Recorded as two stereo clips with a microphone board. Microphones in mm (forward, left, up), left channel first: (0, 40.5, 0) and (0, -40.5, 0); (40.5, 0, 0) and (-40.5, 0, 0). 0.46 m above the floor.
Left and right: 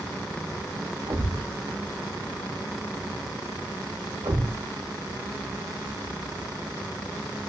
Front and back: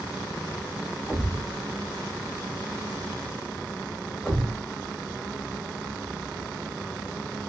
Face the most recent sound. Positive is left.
turn(degrees=-80)